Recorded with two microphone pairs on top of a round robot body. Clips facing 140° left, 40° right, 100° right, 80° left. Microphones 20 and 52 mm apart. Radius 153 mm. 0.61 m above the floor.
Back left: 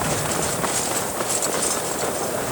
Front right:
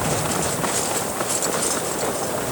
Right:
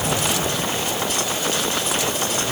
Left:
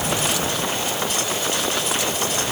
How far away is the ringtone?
No ringtone in this recording.